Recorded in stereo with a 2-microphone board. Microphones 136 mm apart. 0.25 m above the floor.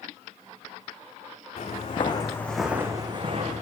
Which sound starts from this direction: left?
Footsteps, at 1.6 s.